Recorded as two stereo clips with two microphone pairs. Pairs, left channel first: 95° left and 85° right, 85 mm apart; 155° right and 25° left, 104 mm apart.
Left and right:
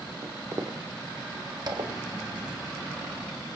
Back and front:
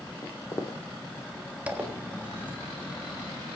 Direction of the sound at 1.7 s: 50° right.